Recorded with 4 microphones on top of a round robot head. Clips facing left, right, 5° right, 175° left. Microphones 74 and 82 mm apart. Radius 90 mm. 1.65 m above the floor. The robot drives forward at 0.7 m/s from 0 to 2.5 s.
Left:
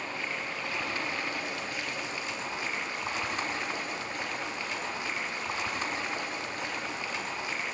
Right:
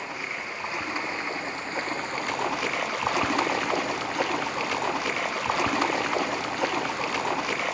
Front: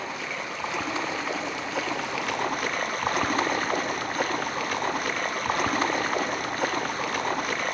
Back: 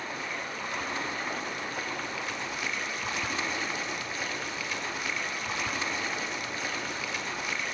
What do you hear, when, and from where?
0.0 s running water: 15° right, 2 m; by 7.8 s 55° right, 0.6 m